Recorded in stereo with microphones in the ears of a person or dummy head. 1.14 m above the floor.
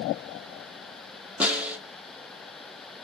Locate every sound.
1.4 s a snare drum: 5° right (ahead or behind), 0.6 m